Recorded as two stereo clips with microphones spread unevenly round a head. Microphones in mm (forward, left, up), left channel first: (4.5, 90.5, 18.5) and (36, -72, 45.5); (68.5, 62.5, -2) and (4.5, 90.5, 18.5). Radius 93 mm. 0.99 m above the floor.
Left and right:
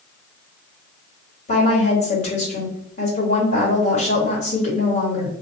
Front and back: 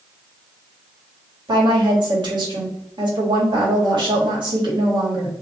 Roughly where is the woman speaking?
Behind left.